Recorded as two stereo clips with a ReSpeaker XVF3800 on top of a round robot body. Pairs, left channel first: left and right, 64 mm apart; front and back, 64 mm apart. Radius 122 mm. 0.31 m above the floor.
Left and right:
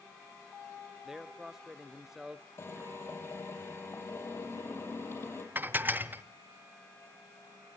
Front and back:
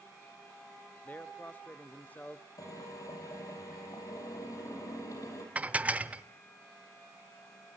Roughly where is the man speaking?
Ahead.